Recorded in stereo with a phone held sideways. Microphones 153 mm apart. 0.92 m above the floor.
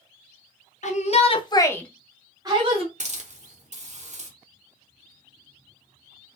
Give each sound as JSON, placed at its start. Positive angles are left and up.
{"t": 0.8, "sound": "a shout", "side_deg": 50, "distance_m": 0.8}
{"t": 3.0, "sound": "a hiss", "side_deg": -50, "distance_m": 0.8}